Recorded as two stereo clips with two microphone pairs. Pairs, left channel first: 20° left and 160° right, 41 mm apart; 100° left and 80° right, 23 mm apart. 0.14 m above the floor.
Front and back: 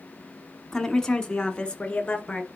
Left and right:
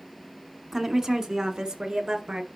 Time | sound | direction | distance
0.7 | a woman speaking | 40° right | 1.2 m